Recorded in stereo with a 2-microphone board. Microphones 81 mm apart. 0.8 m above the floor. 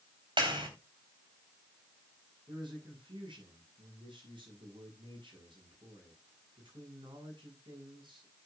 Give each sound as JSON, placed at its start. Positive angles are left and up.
{"t": 0.4, "sound": "a clap", "side_deg": -75, "distance_m": 3.5}
{"t": 2.5, "sound": "a man speaking", "side_deg": -85, "distance_m": 8.5}